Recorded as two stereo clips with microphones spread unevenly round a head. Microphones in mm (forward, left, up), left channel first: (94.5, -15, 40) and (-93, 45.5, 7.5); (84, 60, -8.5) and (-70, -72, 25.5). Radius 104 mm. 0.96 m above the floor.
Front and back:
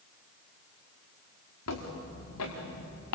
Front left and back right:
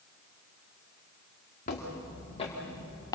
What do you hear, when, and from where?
1.7 s footsteps: 15° right, 6 m; by 3.2 s 35° right, 6.5 m